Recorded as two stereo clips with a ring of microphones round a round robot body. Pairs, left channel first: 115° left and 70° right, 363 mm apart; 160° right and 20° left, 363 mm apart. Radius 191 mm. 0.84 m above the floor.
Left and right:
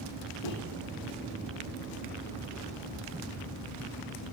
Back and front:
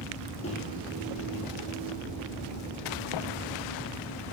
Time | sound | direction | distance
0.4 | a microwave | 130° left | 1.0 m